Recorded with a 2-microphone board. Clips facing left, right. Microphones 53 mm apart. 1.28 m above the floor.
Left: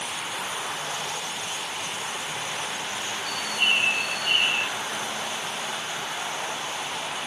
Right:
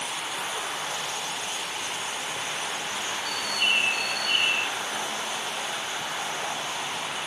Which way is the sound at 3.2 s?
40° left (ahead or behind).